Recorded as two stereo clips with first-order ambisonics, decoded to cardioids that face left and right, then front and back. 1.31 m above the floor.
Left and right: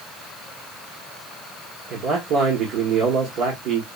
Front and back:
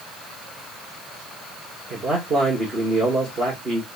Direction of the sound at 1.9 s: 115° right.